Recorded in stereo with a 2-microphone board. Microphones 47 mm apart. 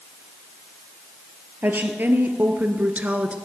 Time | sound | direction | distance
1.6 | a woman speaking | 45° right (ahead or behind) | 2 m